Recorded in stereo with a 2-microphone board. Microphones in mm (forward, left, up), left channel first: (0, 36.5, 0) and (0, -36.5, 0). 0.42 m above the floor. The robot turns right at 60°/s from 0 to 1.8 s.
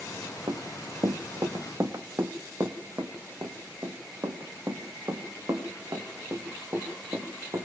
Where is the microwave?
I don't hear a microwave.